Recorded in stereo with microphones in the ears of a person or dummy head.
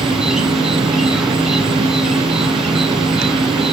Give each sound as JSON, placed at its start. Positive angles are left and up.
{"t": 0.0, "sound": "an insect", "side_deg": 0, "distance_m": 1.1}